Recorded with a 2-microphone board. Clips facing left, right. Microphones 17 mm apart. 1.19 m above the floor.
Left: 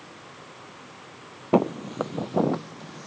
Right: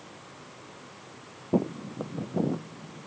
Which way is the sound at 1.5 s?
55° left (ahead or behind).